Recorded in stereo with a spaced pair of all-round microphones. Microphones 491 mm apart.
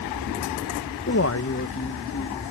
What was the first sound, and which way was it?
A man speaking, 30° left (ahead or behind).